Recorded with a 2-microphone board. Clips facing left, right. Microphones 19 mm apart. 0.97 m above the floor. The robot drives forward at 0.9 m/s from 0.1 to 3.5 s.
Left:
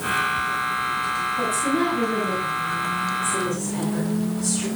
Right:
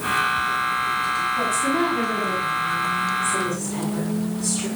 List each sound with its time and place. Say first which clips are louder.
1.4 s a woman speaking: left 1 dB; 40° right (ahead or behind), 6 m; by 4.7 s 30° right (ahead or behind), 7.5 m